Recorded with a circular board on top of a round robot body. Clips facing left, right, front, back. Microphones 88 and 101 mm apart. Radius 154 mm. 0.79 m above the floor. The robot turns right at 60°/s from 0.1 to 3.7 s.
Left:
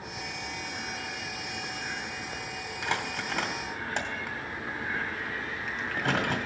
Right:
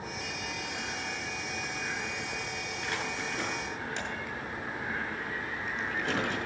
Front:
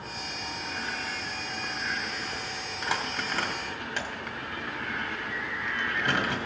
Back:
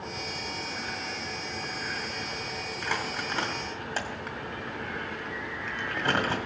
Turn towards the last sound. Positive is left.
turn(degrees=125)